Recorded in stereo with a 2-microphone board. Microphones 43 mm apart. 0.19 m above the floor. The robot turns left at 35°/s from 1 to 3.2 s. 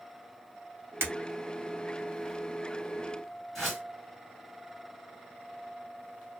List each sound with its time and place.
1.0 s breaking glass: 70° right (ahead or behind), 1.6 m
3.5 s a whoosh: centre (ahead or behind), 2 m